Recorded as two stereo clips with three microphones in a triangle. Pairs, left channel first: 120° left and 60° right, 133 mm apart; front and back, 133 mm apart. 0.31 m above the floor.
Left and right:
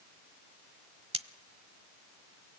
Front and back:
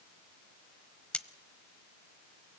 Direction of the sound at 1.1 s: 80° right.